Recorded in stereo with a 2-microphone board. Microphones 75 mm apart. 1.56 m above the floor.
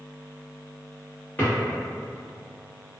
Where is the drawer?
25° left (ahead or behind), 1.1 m.